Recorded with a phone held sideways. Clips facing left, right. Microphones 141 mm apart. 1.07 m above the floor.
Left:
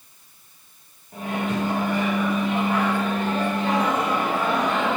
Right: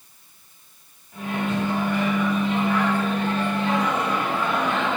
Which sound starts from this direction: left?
A microwave, at 1.1 s.